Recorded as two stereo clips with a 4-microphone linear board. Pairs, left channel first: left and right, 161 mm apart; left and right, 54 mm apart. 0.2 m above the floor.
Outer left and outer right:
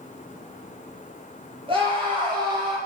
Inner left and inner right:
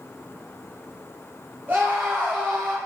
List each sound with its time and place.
1.7 s a scream: 35° right (ahead or behind), 7 m; by 2.8 s 25° right (ahead or behind), 7 m